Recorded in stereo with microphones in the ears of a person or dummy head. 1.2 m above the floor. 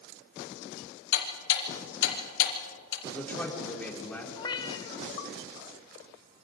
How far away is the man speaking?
About 3.5 m.